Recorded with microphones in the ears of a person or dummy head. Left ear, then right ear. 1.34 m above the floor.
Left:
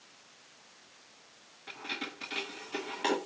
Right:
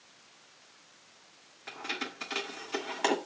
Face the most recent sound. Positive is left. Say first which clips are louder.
# right 2 dB
turn(degrees=-35)  # may be behind; listen again after turning